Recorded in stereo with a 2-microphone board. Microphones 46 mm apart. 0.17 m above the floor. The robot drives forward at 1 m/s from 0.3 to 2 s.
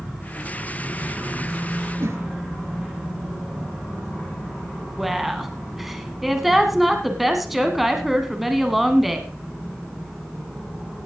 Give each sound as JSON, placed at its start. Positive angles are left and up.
{"t": 2.0, "sound": "a whoosh", "side_deg": -65, "distance_m": 1.7}
{"t": 5.0, "sound": "a woman speaking", "side_deg": -5, "distance_m": 1.3}